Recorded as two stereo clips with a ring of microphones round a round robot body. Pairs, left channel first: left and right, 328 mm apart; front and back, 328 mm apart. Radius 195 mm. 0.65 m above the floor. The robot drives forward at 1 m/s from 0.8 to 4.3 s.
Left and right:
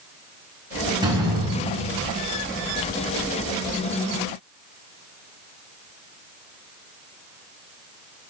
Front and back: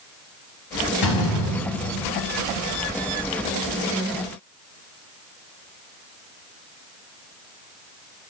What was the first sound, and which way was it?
A door slam, 10° right.